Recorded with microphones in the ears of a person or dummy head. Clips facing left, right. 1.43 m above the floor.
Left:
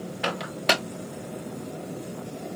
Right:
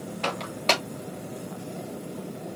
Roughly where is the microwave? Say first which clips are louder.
Left 1 dB; centre.